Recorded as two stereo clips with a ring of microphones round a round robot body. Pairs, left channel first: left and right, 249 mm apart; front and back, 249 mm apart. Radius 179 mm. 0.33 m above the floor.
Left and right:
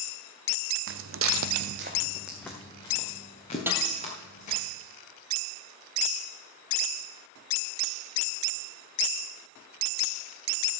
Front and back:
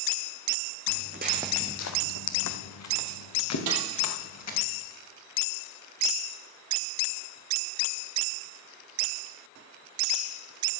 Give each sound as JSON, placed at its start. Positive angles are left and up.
{"t": 0.9, "sound": "footsteps", "azimuth_deg": -130, "distance_m": 1.0}
{"t": 3.7, "sound": "a snare drum", "azimuth_deg": -170, "distance_m": 2.5}